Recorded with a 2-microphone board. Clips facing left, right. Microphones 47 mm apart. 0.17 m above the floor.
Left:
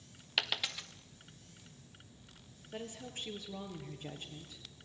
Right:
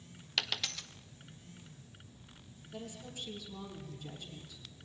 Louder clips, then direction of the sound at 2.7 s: Left 1 dB; 40° left (ahead or behind).